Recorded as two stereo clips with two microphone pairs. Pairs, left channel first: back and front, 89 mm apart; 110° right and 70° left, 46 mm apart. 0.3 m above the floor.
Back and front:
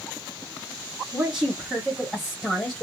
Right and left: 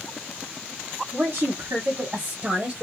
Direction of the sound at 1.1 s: 85° left.